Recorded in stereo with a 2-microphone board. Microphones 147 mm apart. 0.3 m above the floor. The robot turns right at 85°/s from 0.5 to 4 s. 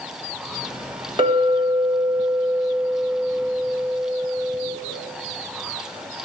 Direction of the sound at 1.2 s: 110° right.